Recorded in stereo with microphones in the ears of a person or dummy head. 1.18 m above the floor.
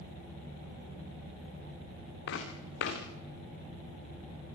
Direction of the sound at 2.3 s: 70° left (ahead or behind).